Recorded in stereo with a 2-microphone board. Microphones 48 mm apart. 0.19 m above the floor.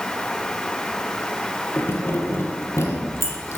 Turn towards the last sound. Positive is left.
turn(degrees=65)  # may be behind; listen again after turning